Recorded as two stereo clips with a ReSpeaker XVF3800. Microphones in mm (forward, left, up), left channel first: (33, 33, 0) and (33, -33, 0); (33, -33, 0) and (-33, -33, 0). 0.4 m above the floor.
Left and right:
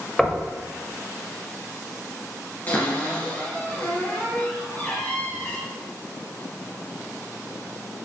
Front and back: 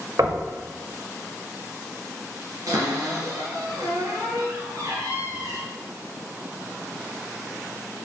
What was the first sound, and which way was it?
Knocking, 175° left.